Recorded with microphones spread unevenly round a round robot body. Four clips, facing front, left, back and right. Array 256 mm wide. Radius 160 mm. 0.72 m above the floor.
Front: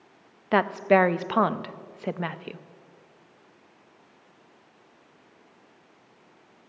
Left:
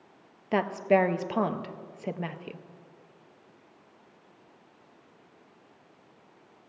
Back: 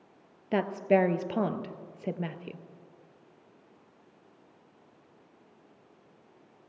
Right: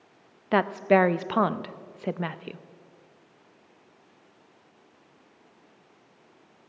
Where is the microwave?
No microwave in this recording.